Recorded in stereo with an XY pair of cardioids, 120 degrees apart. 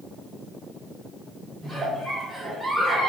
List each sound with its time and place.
1.6 s a giggle: 10° right, 1.8 m